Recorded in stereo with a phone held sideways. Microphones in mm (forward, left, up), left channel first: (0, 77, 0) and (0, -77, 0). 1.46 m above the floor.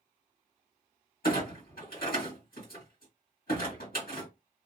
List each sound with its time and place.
1.2 s a clunk: 70° left (ahead or behind), 1.5 m